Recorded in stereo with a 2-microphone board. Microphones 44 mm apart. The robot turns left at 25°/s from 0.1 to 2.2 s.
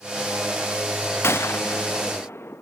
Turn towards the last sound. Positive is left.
turn(degrees=75)  # may be behind; listen again after turning